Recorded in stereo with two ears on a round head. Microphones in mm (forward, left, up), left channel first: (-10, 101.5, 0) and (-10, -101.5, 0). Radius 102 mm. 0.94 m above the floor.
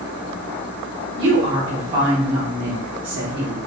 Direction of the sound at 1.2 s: 55° right (ahead or behind).